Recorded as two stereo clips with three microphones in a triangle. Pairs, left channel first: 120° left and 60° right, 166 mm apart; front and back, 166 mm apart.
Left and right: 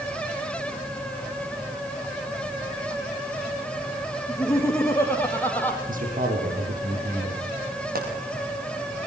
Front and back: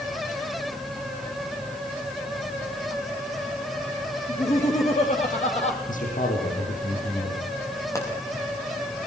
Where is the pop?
70° right, 8 m.